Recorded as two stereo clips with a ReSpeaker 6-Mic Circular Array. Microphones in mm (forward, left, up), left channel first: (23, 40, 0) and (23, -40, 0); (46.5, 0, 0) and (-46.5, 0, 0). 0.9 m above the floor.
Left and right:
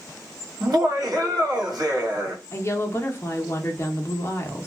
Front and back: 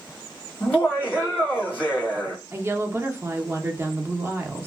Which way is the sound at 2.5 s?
130° left.